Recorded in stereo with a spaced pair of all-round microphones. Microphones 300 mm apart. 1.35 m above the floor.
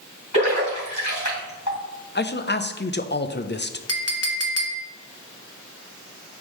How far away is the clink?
About 1.0 m.